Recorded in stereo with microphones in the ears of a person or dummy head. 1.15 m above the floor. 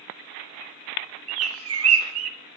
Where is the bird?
75° right (ahead or behind), 1.0 m.